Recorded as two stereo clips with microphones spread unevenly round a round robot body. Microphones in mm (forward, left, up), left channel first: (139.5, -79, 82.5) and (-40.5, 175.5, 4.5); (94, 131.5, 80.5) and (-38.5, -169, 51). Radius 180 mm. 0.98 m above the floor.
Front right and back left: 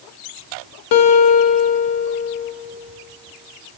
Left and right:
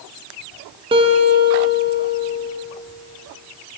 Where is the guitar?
40° right, 0.8 m.